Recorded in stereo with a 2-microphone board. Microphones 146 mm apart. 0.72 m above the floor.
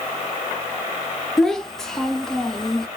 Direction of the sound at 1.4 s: 5° left (ahead or behind).